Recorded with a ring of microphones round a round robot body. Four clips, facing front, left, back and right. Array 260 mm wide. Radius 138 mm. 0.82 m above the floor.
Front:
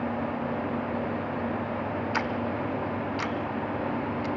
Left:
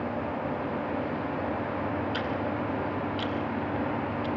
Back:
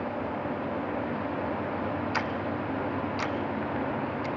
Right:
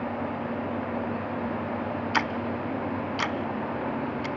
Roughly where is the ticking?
Right.